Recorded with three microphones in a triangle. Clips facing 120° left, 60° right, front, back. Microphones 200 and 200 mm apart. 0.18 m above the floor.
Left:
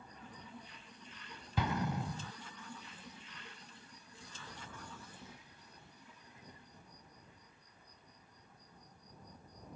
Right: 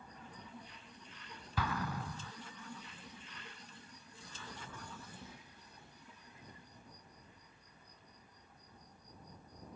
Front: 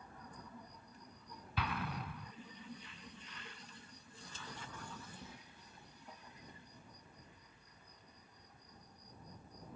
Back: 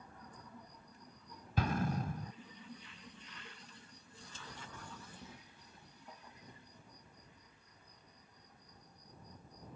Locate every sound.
1.6 s an explosion: 175° left